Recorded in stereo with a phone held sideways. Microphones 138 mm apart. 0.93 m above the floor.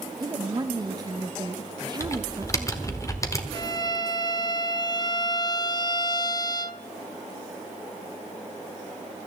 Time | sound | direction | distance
0.2 | a woman speaking | 30° right (ahead or behind) | 0.7 m
2.0 | typing on a keyboard | 25° left (ahead or behind) | 1.3 m
3.5 | a violin | 30° left (ahead or behind) | 0.6 m